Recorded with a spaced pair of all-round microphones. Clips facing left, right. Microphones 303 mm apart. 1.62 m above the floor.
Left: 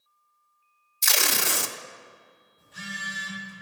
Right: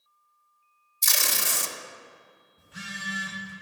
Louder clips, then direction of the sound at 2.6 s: Even; 70° right (ahead or behind).